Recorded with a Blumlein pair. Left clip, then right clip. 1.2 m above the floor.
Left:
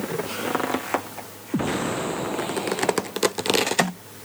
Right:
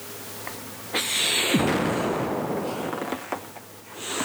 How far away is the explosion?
About 0.8 m.